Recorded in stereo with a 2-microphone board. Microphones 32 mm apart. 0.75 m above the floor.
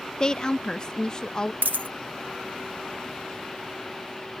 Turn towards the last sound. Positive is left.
turn(degrees=-75)  # may be behind; listen again after turning